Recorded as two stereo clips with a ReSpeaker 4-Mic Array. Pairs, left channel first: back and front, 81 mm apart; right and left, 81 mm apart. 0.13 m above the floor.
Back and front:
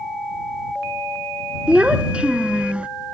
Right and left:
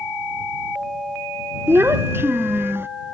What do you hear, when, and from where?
1.7 s a child speaking: 65° left